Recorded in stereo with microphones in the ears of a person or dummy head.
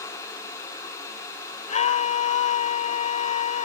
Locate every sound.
1.7 s a scream: 40° left (ahead or behind)